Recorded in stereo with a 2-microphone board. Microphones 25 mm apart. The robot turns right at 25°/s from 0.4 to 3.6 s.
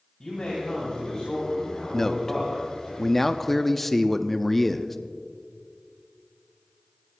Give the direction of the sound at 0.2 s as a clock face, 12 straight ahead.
8 o'clock.